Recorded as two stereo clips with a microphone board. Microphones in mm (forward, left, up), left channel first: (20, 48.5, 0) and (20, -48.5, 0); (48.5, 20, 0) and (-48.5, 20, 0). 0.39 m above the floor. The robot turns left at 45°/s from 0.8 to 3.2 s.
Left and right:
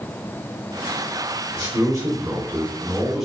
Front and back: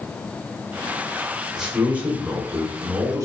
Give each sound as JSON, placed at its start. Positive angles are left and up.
{"t": 1.6, "sound": "a man speaking", "azimuth_deg": -100, "distance_m": 1.6}